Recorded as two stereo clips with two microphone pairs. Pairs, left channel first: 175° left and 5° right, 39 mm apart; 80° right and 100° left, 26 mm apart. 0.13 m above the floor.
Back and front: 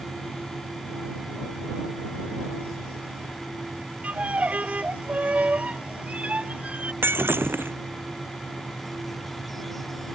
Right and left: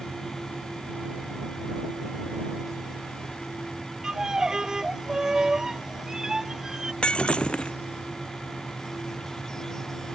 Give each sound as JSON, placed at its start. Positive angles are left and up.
{"t": 4.0, "sound": "a violin", "azimuth_deg": 40}
{"t": 7.0, "sound": "breaking glass", "azimuth_deg": -25}